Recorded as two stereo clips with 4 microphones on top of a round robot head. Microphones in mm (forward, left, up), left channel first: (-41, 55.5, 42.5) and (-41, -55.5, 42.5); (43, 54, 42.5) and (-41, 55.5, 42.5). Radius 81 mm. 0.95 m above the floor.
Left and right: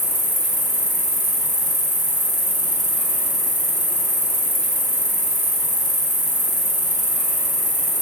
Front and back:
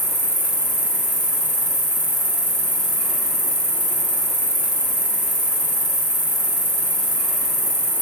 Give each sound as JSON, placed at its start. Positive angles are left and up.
{"t": 0.0, "sound": "an insect", "azimuth_deg": -135, "distance_m": 1.6}